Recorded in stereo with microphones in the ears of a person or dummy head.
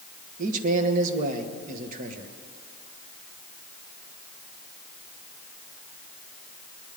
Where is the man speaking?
50° right (ahead or behind), 1.3 m.